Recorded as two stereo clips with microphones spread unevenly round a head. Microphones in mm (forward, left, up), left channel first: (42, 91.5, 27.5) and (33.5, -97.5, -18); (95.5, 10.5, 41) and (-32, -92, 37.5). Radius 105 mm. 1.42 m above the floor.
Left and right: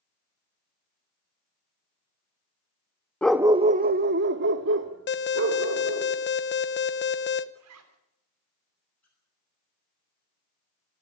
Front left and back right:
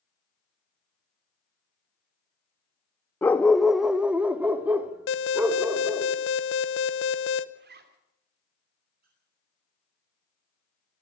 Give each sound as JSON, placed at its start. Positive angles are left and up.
{"t": 3.2, "sound": "a dog barking", "azimuth_deg": 100, "distance_m": 0.8}
{"t": 5.1, "sound": "an alarm", "azimuth_deg": 55, "distance_m": 1.1}
{"t": 7.5, "sound": "a zipper", "azimuth_deg": -115, "distance_m": 3.0}
{"t": 9.0, "sound": "a squeak", "azimuth_deg": 170, "distance_m": 9.0}